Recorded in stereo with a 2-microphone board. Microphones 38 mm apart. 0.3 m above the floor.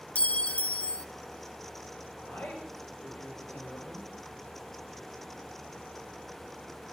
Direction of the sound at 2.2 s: 65° left (ahead or behind).